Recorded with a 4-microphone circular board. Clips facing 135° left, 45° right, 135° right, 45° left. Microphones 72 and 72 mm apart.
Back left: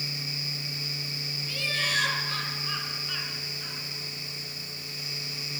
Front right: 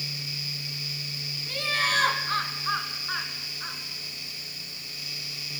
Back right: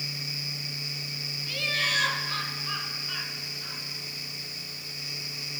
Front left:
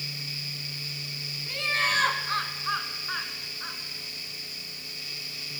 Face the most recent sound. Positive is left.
turn(degrees=5)